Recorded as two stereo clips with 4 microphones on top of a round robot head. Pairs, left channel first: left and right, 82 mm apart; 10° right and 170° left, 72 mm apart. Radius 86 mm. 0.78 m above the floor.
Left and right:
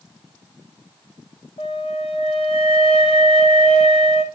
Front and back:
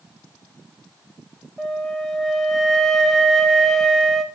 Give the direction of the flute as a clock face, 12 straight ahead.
9 o'clock.